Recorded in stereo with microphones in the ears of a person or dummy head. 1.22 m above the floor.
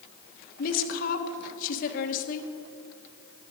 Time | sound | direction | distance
0.6 | a woman speaking | 55° left (ahead or behind) | 1.3 m